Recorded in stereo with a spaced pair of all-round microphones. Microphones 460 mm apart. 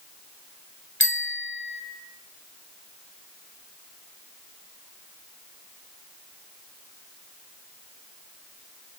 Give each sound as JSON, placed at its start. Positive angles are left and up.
{"t": 1.0, "sound": "a bicycle bell", "side_deg": 25, "distance_m": 3.5}